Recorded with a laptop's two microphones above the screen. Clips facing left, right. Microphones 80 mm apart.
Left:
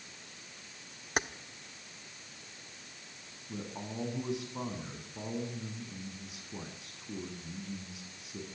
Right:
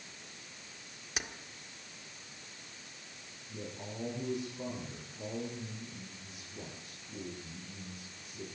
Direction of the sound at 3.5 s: 80° left.